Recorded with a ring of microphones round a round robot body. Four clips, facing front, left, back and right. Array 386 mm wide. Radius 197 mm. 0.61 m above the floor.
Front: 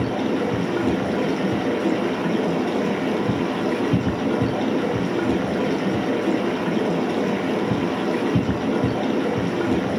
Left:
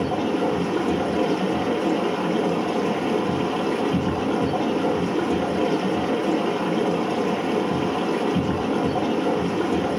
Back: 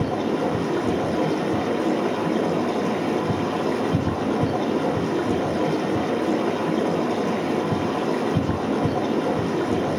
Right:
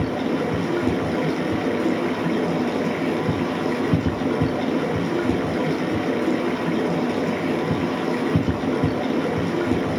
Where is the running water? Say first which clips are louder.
Left 1 dB, front 1 dB; 65° right, 7 m.